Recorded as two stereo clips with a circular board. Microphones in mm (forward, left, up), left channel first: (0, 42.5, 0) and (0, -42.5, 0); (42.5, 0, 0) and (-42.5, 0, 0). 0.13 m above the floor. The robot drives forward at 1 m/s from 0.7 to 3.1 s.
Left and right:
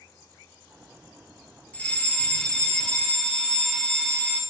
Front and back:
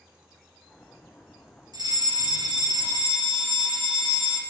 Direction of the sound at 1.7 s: 160° left.